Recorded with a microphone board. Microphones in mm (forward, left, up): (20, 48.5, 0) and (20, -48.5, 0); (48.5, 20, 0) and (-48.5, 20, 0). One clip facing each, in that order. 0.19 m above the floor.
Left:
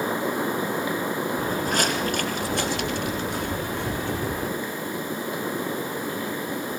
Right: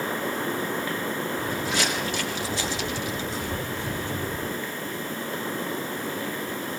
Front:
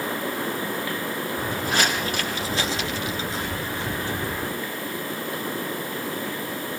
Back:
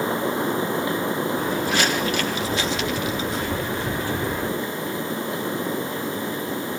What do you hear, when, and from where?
1.4 s footsteps: 45° left, 5.5 m; by 4.5 s 70° left, 9.5 m